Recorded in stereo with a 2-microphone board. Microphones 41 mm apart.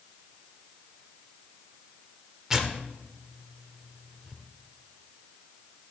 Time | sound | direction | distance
2.5 | tearing paper | 15° right (ahead or behind) | 1.0 m